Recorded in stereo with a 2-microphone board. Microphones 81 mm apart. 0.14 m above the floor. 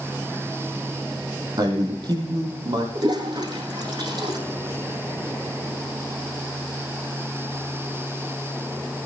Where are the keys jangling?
No keys jangling in this recording.